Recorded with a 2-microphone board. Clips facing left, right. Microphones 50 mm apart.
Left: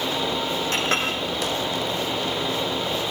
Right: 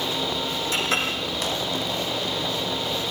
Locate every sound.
0.7 s a clink: 60° left (ahead or behind), 7 m